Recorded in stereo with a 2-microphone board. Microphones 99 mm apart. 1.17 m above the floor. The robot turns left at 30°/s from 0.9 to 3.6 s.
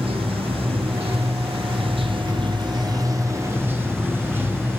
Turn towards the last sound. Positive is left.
turn(degrees=-155)